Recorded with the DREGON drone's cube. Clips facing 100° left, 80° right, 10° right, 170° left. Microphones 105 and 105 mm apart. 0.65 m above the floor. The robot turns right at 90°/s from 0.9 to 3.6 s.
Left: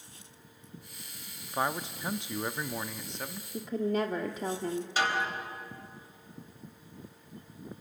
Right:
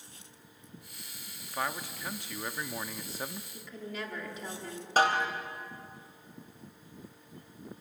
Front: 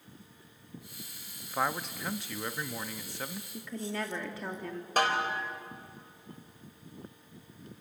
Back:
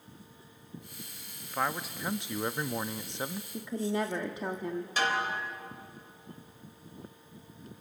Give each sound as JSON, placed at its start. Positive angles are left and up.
{"t": 1.5, "sound": "a man speaking", "azimuth_deg": 55, "distance_m": 0.5}
{"t": 3.5, "sound": "a woman speaking", "azimuth_deg": 100, "distance_m": 1.2}
{"t": 5.0, "sound": "a snare drum", "azimuth_deg": -40, "distance_m": 3.5}